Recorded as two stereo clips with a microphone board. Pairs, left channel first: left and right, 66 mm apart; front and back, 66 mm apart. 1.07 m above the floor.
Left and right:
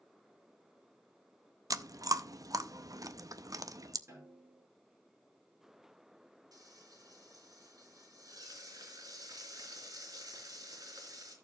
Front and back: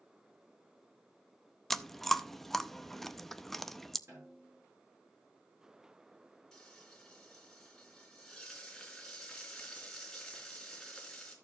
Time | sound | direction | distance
1.7 | chewing | 85° right | 0.5 m
4.1 | a snare drum | 135° right | 8.5 m
6.5 | frying | 85° right | 3.5 m